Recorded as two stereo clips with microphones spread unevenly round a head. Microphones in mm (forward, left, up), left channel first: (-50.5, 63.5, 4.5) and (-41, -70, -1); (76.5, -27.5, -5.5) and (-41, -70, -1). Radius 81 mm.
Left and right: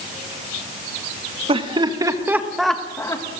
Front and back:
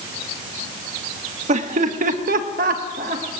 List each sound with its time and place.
1.5 s laughter: 135° right, 2 m; by 3.2 s 155° left, 1.6 m